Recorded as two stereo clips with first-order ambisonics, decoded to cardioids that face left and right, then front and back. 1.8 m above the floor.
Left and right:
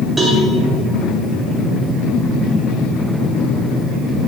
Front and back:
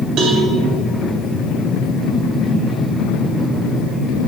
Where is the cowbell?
170° right, 1.7 m.